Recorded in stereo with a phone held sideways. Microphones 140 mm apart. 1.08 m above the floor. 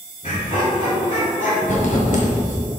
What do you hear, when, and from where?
0.2 s laughter: 60° left (ahead or behind), 2.5 m; by 1.5 s 70° left (ahead or behind), 1.9 m
1.6 s writing: 65° left (ahead or behind), 1.8 m